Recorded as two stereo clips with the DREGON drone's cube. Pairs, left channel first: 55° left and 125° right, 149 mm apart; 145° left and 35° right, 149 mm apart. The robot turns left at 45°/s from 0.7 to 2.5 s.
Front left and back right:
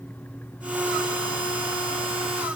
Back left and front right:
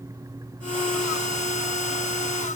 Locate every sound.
Only background noise.